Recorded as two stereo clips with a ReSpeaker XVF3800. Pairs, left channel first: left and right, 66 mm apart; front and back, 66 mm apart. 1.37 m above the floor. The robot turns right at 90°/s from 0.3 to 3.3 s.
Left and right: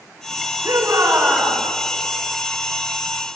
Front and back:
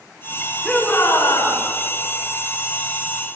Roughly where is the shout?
Right.